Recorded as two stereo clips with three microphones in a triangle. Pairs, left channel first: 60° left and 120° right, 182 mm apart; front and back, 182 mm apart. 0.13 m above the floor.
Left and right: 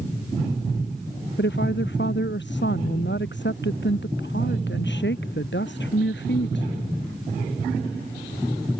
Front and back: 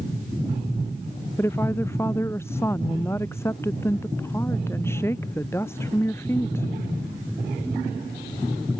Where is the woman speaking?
75° left.